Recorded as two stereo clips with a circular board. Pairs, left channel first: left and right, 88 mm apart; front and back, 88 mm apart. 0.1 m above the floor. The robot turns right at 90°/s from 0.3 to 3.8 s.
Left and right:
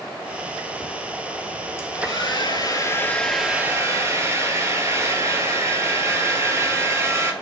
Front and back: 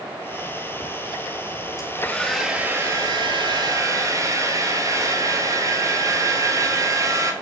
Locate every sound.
1.8 s a hair dryer: 35° left, 1.6 m; by 7.3 s 140° right, 1.6 m